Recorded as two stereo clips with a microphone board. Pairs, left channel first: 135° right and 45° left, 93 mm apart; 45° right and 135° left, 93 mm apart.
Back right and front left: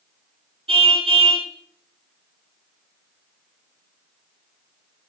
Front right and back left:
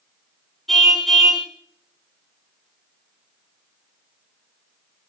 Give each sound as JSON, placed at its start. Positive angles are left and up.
{"t": 0.7, "sound": "a car horn", "azimuth_deg": 40, "distance_m": 4.5}